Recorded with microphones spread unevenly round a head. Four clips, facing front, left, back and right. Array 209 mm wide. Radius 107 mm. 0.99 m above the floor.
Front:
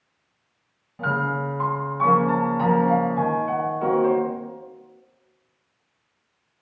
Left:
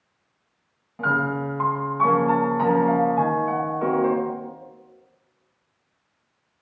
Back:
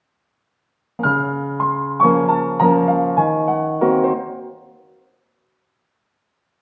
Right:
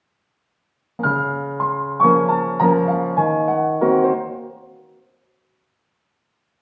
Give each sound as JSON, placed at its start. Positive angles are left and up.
{"t": 1.0, "sound": "a piano", "azimuth_deg": -150, "distance_m": 0.6}